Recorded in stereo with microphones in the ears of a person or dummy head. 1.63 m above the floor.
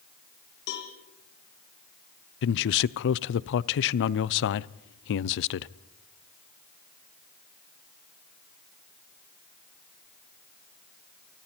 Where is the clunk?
No clunk in this recording.